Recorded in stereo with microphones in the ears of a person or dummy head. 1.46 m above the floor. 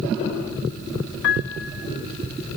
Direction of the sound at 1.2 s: 70° left (ahead or behind).